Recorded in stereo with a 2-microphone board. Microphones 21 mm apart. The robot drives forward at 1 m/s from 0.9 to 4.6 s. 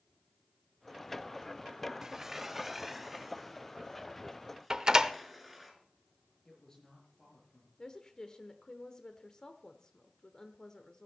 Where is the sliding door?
25° right (ahead or behind), 0.6 m; by 5.7 s 5° right (ahead or behind), 3 m.